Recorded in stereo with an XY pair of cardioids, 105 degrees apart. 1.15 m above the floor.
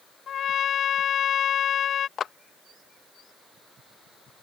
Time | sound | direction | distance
0.3 | a trumpet | 55° left | ?
2.2 | a clap | 55° left | ?